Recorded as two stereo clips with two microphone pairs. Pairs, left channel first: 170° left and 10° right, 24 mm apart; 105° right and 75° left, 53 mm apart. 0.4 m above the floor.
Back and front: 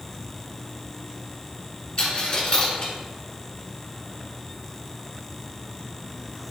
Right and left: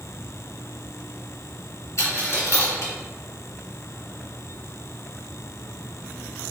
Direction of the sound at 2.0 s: 135° right.